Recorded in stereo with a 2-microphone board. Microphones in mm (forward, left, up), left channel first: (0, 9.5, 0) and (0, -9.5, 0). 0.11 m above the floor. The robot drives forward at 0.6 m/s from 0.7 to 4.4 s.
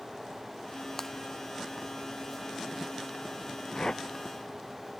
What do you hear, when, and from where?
1.0 s breaking glass: 15° left (ahead or behind)
3.8 s a whoosh: 40° left (ahead or behind)